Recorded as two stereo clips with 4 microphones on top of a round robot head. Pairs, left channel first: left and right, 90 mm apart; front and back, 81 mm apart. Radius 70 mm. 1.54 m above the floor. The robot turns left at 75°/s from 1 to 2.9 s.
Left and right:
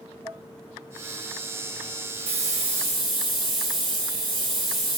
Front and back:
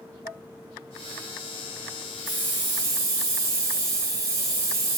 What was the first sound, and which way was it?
Dishes clattering, 25° left.